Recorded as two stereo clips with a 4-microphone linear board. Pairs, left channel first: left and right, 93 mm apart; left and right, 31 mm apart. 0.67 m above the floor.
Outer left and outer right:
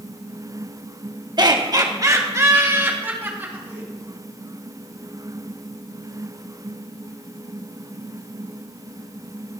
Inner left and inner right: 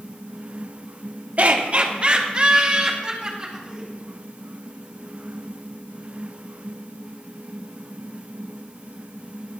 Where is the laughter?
45° right (ahead or behind), 1.0 m; by 3.9 s 20° right (ahead or behind), 2.5 m.